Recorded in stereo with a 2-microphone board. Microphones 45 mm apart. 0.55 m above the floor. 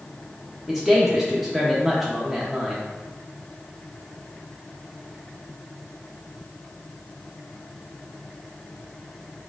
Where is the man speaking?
5° right (ahead or behind), 0.7 m.